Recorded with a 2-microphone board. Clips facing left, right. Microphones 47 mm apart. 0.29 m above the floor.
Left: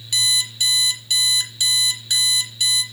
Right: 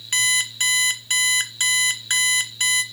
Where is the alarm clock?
50° right (ahead or behind), 1.5 m.